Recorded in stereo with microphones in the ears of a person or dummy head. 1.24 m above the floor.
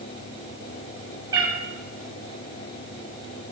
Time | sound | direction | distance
1.3 | a cat meowing | 20° right (ahead or behind) | 0.6 m